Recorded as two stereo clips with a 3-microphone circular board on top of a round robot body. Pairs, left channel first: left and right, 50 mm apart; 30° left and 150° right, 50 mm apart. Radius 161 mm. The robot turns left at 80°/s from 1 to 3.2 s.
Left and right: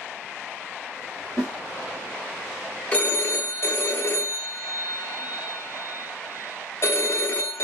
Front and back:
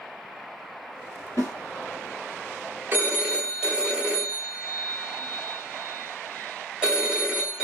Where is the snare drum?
10° right, 0.8 m; by 1.5 s 25° right, 0.8 m.